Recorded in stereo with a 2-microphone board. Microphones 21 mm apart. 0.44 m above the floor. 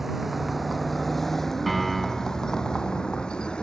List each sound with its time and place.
0.0 s a vehicle: 10° right (ahead or behind); by 3.6 s 45° left (ahead or behind)
1.7 s a piano: 5° left (ahead or behind)